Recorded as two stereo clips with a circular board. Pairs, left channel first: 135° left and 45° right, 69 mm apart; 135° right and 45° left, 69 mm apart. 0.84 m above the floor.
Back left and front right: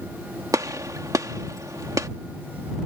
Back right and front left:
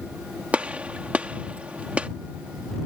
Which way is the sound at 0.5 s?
25° right.